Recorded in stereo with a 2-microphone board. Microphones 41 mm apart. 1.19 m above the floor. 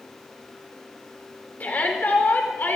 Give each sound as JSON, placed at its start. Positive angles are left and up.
{"t": 1.6, "sound": "a shout", "side_deg": 40, "distance_m": 5.0}